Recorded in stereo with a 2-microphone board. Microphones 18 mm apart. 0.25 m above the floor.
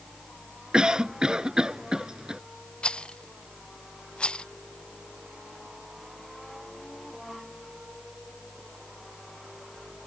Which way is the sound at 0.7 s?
50° right (ahead or behind).